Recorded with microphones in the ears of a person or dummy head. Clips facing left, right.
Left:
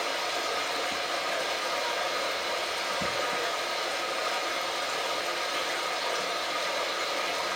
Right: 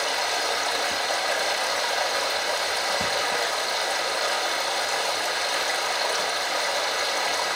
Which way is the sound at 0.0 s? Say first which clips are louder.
Right 4 dB; 75° right (ahead or behind).